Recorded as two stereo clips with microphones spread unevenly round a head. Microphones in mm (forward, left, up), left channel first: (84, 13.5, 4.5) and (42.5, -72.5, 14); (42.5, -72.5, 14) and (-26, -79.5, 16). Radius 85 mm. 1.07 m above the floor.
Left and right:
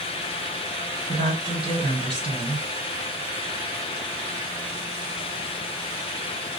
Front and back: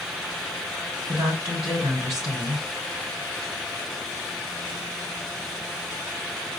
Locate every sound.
1.1 s a woman speaking: 160° right, 4 m